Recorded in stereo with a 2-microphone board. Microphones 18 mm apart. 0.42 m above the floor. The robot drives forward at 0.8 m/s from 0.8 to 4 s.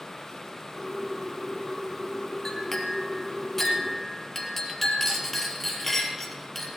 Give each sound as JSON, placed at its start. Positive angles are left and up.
{"t": 2.5, "sound": "a clink", "side_deg": 35, "distance_m": 1.8}